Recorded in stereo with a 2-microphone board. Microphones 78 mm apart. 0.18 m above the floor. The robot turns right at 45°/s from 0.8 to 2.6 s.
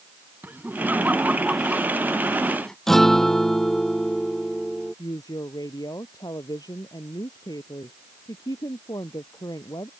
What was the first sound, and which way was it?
Laughter, 25° right (ahead or behind).